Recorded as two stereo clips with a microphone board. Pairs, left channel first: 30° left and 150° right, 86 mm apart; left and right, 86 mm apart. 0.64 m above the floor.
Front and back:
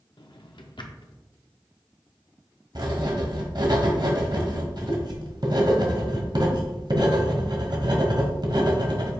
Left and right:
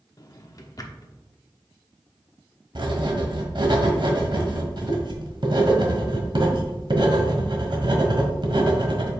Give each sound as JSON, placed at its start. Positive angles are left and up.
{"t": 0.2, "sound": "a drawer", "azimuth_deg": 50, "distance_m": 0.7}
{"t": 2.8, "sound": "writing", "azimuth_deg": -120, "distance_m": 1.3}